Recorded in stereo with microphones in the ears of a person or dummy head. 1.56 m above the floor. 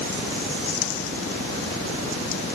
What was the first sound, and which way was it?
Only background noise.